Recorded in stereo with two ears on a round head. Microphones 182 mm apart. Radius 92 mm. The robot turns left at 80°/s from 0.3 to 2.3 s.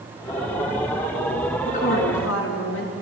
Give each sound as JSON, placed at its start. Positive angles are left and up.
{"t": 1.6, "sound": "a woman speaking", "azimuth_deg": 150, "distance_m": 5.5}